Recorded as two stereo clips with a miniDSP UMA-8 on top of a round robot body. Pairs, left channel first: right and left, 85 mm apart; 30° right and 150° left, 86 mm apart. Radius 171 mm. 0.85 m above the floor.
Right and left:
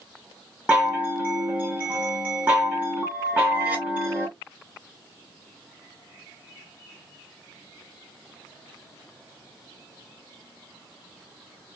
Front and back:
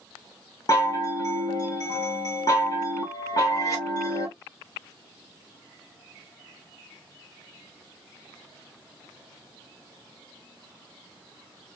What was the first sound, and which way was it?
A chime, 15° left.